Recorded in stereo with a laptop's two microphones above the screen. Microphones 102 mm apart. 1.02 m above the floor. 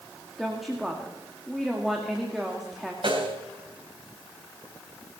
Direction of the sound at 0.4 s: Centre (ahead or behind).